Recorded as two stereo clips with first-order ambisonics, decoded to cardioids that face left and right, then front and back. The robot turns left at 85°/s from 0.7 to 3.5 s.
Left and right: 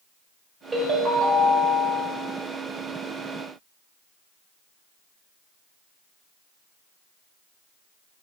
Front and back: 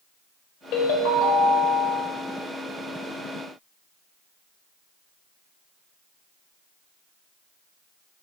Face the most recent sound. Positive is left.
turn(degrees=120)